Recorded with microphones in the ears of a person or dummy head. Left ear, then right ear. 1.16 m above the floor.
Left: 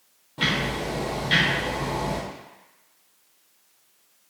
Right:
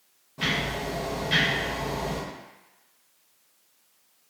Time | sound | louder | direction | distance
0.4 | ticking | left 3 dB | 30° left (ahead or behind) | 0.5 m